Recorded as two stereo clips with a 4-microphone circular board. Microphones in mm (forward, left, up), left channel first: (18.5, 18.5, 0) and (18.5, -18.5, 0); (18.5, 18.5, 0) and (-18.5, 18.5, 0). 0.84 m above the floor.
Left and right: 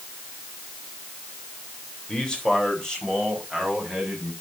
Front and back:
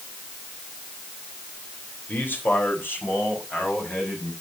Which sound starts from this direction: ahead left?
A man speaking, at 2.1 s.